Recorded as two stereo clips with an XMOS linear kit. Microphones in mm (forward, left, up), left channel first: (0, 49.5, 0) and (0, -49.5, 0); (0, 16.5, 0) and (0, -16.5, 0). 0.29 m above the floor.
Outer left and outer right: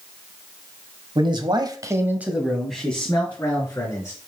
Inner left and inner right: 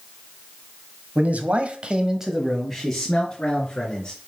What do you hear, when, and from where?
1.1 s a man speaking: 55° right (ahead or behind), 1.5 m; by 4.2 s 20° left (ahead or behind), 3.5 m